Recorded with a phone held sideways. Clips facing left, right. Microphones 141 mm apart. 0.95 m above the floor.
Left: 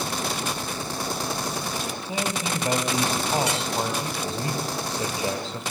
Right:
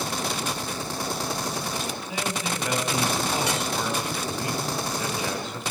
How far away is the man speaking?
About 7 m.